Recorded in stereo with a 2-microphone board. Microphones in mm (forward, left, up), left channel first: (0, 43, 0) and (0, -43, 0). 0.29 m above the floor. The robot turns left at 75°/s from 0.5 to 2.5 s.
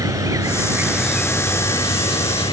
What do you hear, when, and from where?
0.0 s an insect: 135° right; by 2.5 s 75° left